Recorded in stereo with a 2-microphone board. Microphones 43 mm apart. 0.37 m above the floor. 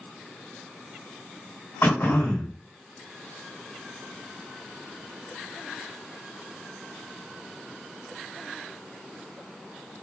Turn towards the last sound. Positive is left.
turn(degrees=60)  # may be behind; listen again after turning